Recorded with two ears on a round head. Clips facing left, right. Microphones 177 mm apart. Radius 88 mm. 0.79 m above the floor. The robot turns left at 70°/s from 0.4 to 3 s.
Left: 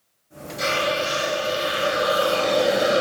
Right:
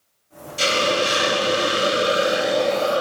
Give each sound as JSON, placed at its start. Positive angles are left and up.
{"t": 0.6, "sound": "a hiss", "azimuth_deg": -40, "distance_m": 0.7}